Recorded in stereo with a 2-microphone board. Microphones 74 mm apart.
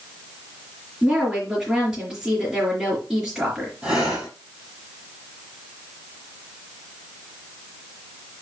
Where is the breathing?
15° right (ahead or behind), 3.5 m.